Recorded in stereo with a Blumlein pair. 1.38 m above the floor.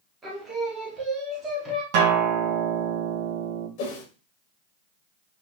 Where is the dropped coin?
I don't hear a dropped coin.